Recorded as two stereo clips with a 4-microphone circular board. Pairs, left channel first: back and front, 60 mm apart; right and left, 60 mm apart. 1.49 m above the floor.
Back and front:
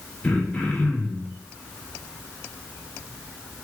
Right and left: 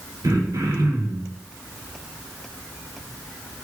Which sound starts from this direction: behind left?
Throat clearing, at 0.2 s.